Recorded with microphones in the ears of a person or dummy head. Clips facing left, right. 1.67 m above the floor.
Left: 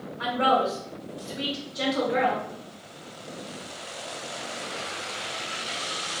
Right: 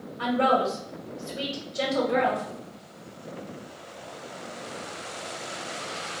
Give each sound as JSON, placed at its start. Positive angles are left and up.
{"t": 0.2, "sound": "a woman speaking", "side_deg": -70, "distance_m": 1.6}